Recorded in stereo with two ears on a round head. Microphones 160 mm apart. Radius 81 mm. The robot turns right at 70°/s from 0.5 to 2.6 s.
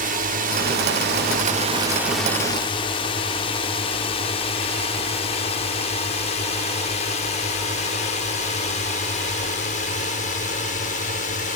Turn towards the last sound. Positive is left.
turn(degrees=45)  # may be behind; listen again after turning